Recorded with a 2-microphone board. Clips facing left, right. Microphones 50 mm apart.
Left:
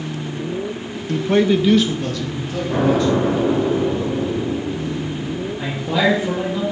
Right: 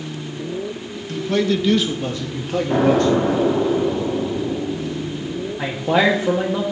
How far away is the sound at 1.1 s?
About 0.7 m.